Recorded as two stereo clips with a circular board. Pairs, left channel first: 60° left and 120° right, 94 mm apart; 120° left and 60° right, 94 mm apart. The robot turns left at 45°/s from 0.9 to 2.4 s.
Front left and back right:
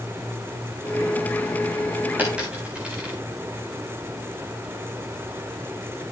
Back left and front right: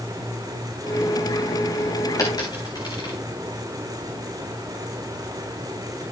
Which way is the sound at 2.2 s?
170° left.